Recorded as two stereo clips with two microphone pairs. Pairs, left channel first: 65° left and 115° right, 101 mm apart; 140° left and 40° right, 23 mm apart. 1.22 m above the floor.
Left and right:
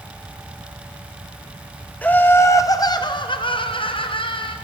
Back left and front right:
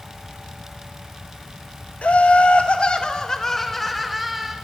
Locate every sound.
2.0 s laughter: 135° left, 1.0 m; by 4.6 s 40° left, 1.2 m